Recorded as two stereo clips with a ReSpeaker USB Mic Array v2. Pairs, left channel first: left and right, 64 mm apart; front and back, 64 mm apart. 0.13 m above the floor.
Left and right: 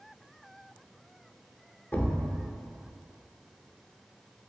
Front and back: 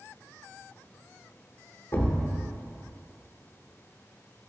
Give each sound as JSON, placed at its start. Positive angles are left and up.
{"t": 1.9, "sound": "a thud", "azimuth_deg": 40, "distance_m": 0.7}